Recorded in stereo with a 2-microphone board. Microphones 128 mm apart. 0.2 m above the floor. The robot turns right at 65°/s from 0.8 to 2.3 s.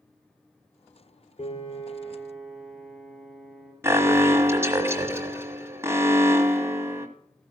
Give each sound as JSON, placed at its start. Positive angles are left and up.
{"t": 1.4, "sound": "a piano", "azimuth_deg": 115, "distance_m": 2.5}
{"t": 3.8, "sound": "an alarm", "side_deg": -20, "distance_m": 1.2}